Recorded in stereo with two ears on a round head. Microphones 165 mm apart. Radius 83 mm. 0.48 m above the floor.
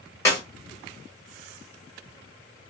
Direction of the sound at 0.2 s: 20° left (ahead or behind).